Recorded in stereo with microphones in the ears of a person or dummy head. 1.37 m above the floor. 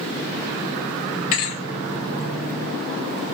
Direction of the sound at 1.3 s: 35° left (ahead or behind).